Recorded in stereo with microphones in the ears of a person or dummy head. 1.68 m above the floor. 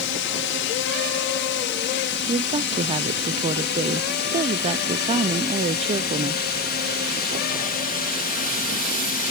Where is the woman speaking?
25° right (ahead or behind).